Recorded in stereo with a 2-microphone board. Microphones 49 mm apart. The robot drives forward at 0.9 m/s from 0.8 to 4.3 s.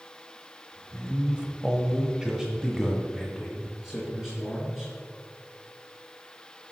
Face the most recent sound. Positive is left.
turn(degrees=-5)  # may be behind; listen again after turning